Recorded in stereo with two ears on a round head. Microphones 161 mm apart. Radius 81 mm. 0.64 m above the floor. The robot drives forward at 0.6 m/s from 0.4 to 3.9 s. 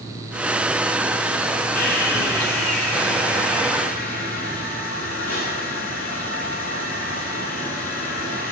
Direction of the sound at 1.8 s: 65° left (ahead or behind).